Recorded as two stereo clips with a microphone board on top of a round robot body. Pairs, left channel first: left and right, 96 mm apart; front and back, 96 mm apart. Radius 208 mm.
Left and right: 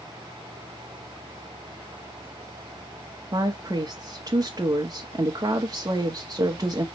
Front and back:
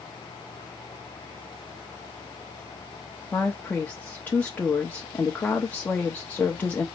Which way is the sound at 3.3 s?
65° right.